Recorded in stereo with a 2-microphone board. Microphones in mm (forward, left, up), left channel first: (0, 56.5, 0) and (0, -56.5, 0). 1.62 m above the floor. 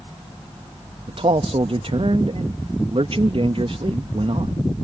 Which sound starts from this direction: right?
A man speaking, at 1.1 s.